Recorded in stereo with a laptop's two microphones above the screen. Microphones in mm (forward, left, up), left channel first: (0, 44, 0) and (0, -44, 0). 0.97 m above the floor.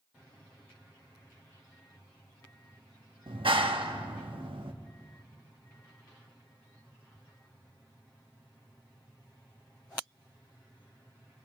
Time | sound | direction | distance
3.3 | a clap | 75° right (ahead or behind) | 1.2 m